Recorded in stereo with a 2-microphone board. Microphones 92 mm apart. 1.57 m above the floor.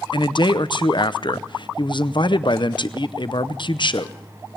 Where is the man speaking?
55° left (ahead or behind), 0.7 m.